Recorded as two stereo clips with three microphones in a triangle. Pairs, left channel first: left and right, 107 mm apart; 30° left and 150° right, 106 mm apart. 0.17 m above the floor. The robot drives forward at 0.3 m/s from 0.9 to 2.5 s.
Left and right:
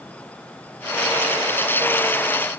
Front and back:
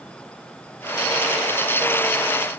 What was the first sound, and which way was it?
Only background noise.